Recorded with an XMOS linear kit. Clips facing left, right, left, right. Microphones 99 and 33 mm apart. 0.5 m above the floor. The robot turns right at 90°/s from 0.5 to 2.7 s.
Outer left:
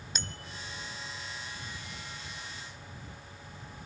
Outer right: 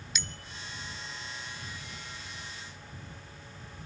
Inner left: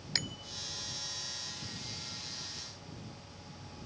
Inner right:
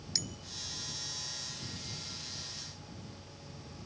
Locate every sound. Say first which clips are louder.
0.1 s a bicycle bell: even, inner left 4 dB; 40° left (ahead or behind); by 0.6 s 30° left (ahead or behind)